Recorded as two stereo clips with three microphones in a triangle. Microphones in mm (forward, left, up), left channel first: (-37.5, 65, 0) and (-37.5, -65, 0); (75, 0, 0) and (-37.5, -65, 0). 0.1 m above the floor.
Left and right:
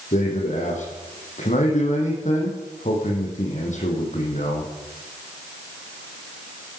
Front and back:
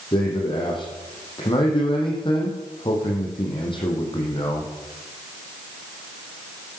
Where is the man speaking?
80° left, 5 m.